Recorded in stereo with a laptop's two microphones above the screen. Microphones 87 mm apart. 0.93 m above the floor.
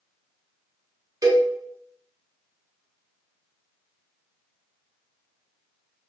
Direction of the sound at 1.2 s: 40° right (ahead or behind).